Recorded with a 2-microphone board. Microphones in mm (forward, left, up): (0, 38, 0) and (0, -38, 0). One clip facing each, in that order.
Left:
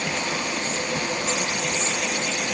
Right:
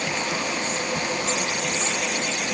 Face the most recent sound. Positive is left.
No sound to turn to.